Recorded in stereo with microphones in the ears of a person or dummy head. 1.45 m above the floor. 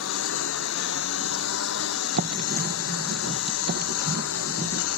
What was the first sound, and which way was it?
A lawn mower, 70° left (ahead or behind).